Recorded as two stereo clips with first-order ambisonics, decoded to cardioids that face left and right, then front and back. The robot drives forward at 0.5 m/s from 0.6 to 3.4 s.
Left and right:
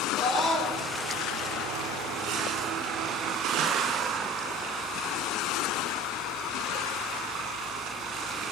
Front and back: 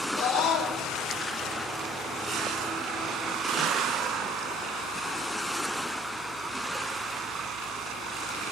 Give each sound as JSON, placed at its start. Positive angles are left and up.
{"t": 0.1, "sound": "a scream", "azimuth_deg": 15, "distance_m": 7.5}